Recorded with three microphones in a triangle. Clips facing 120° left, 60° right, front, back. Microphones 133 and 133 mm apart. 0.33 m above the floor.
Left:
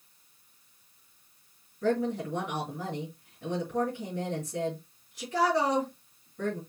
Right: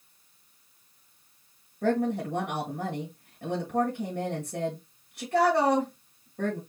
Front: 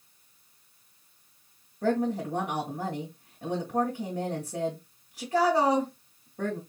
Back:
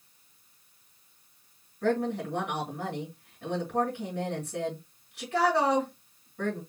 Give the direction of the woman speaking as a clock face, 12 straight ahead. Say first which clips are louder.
Right 2 dB, front 1 dB; 2 o'clock.